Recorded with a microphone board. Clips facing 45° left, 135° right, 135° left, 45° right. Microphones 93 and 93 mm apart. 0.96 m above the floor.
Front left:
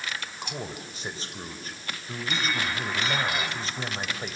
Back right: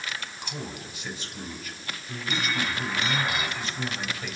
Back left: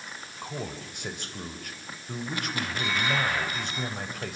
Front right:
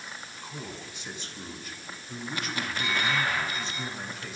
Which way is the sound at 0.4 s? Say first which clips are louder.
Front left 1 dB, back left 6 dB; 100° left.